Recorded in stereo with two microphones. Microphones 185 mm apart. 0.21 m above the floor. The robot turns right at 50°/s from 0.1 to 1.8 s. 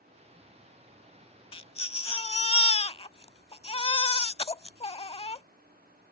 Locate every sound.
1.5 s a baby crying: 30° left (ahead or behind)